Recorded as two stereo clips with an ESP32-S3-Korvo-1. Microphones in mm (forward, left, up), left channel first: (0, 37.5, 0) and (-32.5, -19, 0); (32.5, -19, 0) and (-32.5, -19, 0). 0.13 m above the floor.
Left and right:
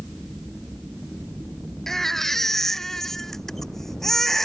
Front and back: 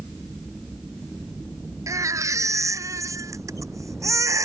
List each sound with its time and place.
1.9 s a baby crying: 145° left